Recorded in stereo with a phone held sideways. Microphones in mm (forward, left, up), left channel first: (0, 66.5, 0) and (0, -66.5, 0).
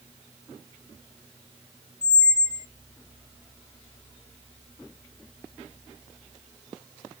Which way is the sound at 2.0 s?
60° left (ahead or behind).